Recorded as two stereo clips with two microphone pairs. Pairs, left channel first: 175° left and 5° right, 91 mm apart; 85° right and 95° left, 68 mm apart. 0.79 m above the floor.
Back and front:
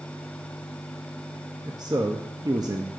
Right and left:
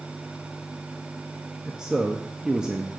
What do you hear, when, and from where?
1.6 s a man speaking: 15° left, 0.7 m